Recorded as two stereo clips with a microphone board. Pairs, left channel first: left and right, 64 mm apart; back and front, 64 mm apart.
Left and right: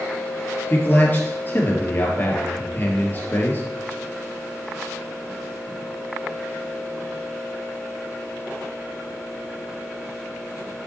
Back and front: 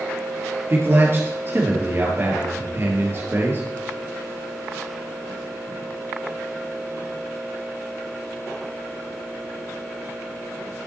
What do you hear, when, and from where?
0.7 s a man speaking: 45° left, 2.5 m